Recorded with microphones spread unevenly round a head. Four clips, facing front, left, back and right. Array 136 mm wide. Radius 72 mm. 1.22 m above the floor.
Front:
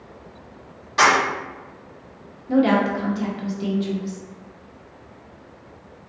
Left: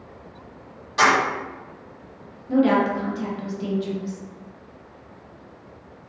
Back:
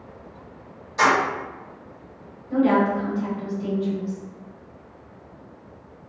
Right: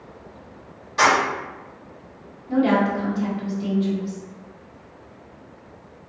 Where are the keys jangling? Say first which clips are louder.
Even, front 2 dB; 25° left, 1.7 m.